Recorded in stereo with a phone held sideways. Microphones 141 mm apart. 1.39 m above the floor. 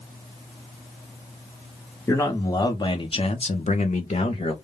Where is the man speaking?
20° left (ahead or behind), 1.0 m; by 4.5 s 50° left (ahead or behind), 0.6 m.